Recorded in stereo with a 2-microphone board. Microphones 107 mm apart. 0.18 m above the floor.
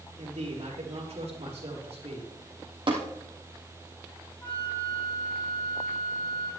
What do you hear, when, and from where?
0.2 s a man speaking: 70° right (ahead or behind), 4.5 m
2.9 s tapping: 50° right (ahead or behind), 3.5 m
4.4 s a flute: 15° left (ahead or behind), 3.5 m